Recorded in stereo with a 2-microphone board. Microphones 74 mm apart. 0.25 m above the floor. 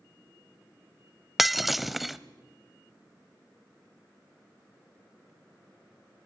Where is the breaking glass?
Centre (ahead or behind), 0.7 m.